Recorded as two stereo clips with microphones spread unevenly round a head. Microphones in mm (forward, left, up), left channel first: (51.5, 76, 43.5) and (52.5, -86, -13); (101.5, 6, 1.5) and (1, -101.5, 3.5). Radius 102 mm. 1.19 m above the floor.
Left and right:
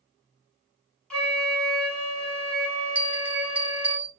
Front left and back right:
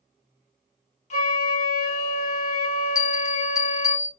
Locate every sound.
1.1 s a flute: 10° left, 1.5 m
3.0 s a bell: 20° right, 1.1 m